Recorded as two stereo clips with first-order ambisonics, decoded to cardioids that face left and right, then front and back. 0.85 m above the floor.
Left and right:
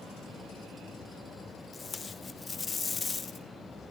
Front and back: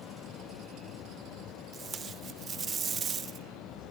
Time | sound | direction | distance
1.7 | tape being pulled | 140° left | 0.7 m